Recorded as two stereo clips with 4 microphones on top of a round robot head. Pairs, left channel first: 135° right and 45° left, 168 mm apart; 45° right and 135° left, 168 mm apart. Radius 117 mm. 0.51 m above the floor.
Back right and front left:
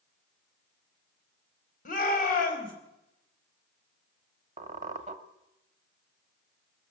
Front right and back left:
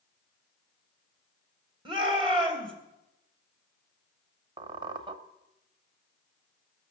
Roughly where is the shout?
Behind.